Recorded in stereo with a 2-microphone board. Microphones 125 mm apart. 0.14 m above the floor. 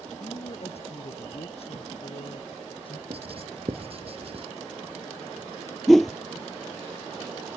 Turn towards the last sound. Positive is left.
turn(degrees=0)  # may be behind; listen again after turning